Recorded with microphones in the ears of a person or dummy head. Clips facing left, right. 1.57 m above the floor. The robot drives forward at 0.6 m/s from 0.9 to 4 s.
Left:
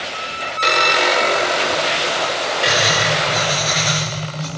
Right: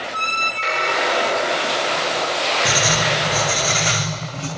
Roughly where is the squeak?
Left.